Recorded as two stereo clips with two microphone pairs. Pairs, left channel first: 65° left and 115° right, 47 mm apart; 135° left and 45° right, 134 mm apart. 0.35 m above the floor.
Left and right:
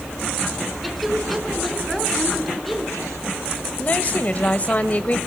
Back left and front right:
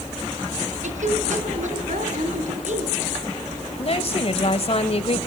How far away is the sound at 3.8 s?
About 1.3 m.